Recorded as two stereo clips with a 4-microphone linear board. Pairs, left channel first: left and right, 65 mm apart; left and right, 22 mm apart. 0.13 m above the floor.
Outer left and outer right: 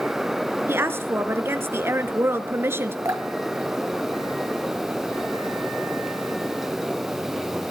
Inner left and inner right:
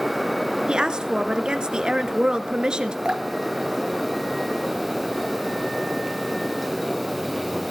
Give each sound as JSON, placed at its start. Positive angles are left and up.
{"t": 0.7, "sound": "a woman speaking", "side_deg": -35, "distance_m": 1.6}
{"t": 3.0, "sound": "dripping", "side_deg": -40, "distance_m": 0.9}